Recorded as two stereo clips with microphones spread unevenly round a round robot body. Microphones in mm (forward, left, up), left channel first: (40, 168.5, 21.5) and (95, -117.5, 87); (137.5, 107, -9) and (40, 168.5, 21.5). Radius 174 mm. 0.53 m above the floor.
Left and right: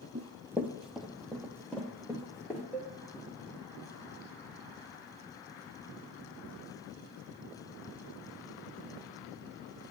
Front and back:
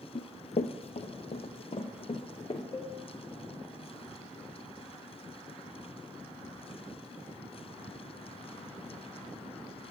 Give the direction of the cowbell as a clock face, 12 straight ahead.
11 o'clock.